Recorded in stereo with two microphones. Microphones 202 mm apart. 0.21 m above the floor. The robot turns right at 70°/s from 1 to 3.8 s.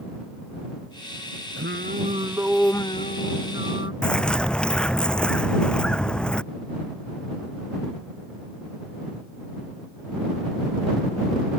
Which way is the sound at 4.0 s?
5° left (ahead or behind).